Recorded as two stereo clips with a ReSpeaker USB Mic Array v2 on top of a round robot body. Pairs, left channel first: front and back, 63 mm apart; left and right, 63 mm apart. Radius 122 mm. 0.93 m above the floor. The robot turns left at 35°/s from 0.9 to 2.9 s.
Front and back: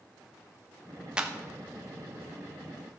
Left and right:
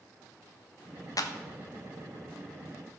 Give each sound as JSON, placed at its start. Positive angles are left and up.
{"t": 1.2, "sound": "a clap", "azimuth_deg": 105, "distance_m": 1.3}